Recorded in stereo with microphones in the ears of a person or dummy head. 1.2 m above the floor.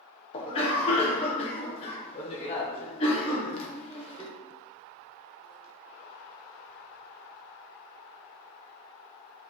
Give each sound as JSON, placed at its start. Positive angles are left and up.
{"t": 0.3, "sound": "a cough", "side_deg": 30, "distance_m": 0.7}